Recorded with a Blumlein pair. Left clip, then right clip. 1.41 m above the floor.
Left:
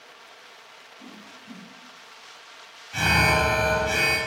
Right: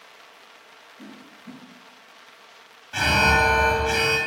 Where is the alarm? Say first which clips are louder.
Right 2 dB; 15° right, 0.6 m.